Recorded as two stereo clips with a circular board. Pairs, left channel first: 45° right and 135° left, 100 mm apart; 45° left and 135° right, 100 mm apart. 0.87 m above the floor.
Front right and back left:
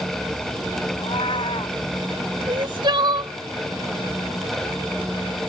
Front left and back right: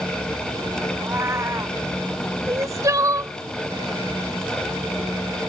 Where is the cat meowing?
70° right.